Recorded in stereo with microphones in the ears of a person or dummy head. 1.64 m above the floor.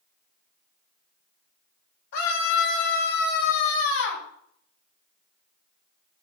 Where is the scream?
65° left (ahead or behind), 8 m; by 4.2 s 75° left (ahead or behind), 9 m.